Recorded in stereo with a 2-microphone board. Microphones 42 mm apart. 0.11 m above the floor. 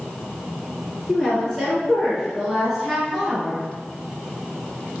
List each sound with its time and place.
1.1 s a woman speaking: 10° left (ahead or behind), 1.4 m; by 3.6 s centre (ahead or behind), 1.8 m